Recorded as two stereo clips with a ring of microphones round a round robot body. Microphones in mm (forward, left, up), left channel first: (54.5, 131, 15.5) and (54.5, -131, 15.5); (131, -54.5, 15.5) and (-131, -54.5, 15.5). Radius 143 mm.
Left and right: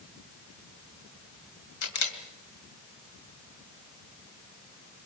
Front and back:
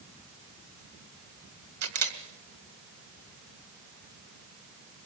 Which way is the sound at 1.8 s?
135° left.